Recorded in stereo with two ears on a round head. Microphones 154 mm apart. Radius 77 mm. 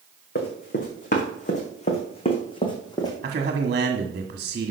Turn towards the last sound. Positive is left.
turn(degrees=-50)  # may be behind; listen again after turning